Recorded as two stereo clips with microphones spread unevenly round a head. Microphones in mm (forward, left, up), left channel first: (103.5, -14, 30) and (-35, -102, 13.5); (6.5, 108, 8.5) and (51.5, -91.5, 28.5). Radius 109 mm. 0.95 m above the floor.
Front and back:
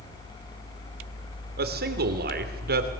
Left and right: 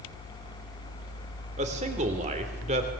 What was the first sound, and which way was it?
A man speaking, 135° right.